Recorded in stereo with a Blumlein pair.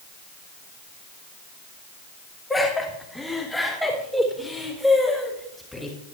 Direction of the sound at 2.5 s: 10° left.